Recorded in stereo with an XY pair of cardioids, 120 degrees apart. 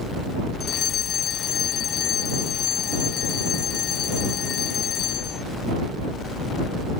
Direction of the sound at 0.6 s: 55° left.